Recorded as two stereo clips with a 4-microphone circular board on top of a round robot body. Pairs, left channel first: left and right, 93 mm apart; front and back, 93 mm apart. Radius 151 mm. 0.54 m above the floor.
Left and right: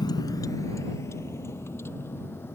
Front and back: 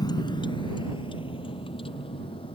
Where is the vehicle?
45° left; by 2.5 s 25° left.